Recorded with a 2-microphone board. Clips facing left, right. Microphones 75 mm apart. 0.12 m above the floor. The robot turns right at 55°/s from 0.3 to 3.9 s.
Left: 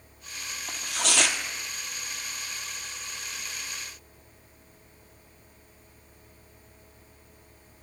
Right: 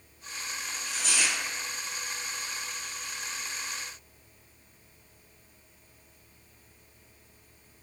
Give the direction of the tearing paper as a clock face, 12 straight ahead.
10 o'clock.